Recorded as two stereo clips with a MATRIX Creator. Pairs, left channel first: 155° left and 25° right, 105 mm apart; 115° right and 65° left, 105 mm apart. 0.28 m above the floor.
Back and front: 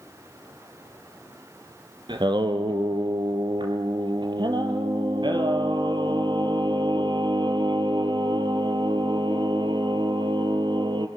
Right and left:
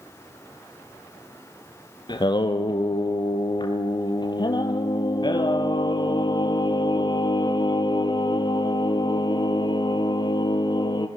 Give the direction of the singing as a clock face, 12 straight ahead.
2 o'clock.